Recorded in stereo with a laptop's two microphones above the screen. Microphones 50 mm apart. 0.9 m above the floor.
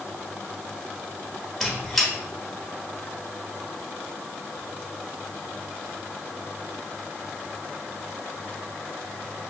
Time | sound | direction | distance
1.6 | a squeak | 5° left (ahead or behind) | 1.3 m